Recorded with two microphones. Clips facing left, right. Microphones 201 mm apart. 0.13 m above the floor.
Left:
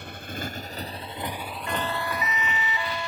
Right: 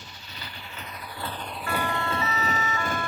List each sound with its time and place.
0.0 s a motorcycle: 60° left (ahead or behind); by 3.1 s 50° right (ahead or behind)
1.7 s a siren: 20° left (ahead or behind); by 3.1 s 15° left (ahead or behind)